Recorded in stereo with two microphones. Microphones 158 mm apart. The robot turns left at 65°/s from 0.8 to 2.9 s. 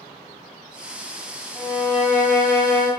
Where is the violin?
165° left, 0.5 m; by 2.9 s 80° left, 0.5 m.